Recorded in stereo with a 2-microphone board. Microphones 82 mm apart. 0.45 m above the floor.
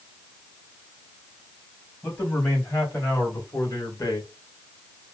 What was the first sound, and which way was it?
A man speaking, 25° left (ahead or behind).